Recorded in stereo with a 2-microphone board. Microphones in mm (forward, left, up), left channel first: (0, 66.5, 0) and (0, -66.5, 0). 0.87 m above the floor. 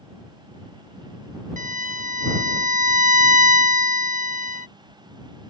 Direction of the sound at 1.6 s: 80° right.